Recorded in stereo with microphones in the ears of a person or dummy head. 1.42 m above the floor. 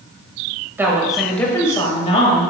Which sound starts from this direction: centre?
A woman speaking, at 0.8 s.